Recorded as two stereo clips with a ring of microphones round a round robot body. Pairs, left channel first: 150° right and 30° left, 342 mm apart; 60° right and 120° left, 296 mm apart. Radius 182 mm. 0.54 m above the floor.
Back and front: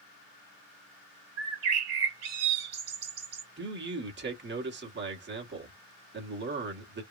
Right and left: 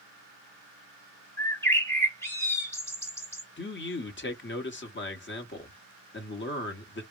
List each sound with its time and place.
1.4 s a bird: 15° left, 1.7 m
3.6 s a man speaking: 20° right, 1.2 m